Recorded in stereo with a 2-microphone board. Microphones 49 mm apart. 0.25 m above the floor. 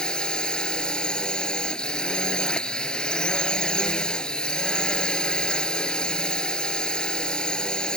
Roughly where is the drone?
Centre.